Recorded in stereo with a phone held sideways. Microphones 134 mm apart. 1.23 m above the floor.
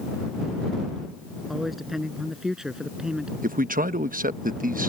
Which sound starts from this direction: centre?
A man speaking, at 1.5 s.